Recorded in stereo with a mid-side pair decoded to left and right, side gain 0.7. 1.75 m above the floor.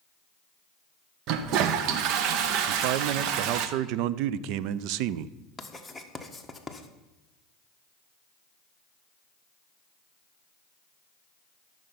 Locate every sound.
1.3 s a toilet flushing: 60° right, 0.9 m
2.7 s a man speaking: 65° right, 0.5 m
5.6 s writing: 5° left, 1.4 m